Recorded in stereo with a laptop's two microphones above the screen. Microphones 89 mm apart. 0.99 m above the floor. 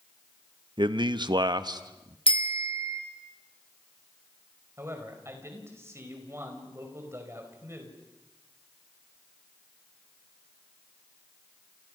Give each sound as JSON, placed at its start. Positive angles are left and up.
{"t": 0.8, "sound": "a man speaking", "side_deg": -60, "distance_m": 1.2}
{"t": 2.3, "sound": "a bicycle bell", "side_deg": 90, "distance_m": 2.5}
{"t": 4.8, "sound": "a man speaking", "side_deg": -30, "distance_m": 4.5}